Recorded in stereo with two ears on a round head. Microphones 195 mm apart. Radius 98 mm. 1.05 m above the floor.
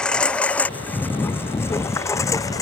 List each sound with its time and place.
0.0 s a lawn mower: 5° left (ahead or behind); by 2.6 s 15° left (ahead or behind)